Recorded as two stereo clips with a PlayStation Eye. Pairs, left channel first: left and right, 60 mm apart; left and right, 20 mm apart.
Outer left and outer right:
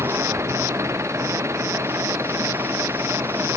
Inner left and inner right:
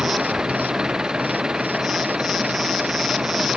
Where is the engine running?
50° right (ahead or behind).